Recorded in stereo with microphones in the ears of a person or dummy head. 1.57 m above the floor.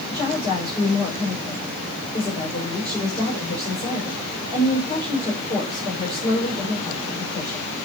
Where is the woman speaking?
25° left (ahead or behind), 6 m.